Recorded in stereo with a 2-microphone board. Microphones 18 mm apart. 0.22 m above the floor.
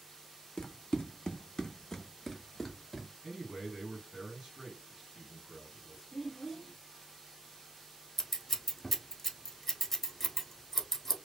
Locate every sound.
0.6 s running footsteps: 70° left (ahead or behind), 0.7 m; by 3.1 s centre (ahead or behind), 1.1 m
3.2 s a man speaking: 30° right (ahead or behind), 2 m
6.1 s a child speaking: 10° left (ahead or behind), 0.5 m
8.2 s scissors: 10° left (ahead or behind), 0.9 m